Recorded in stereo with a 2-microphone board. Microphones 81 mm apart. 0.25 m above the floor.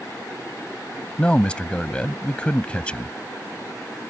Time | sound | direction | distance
1.2 | a man speaking | 15° left (ahead or behind) | ?